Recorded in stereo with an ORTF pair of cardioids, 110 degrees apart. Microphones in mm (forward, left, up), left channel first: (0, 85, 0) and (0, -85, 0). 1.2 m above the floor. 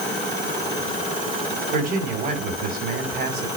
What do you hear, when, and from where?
1.7 s a man speaking: 65° right, 4.5 m